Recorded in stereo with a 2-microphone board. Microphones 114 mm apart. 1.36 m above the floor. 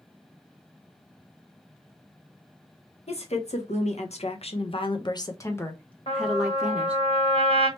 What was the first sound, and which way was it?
A woman speaking, 70° left (ahead or behind).